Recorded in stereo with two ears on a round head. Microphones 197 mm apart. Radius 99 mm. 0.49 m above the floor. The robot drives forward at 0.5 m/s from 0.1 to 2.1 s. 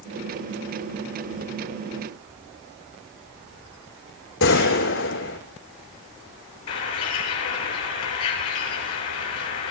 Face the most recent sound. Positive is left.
turn(degrees=85)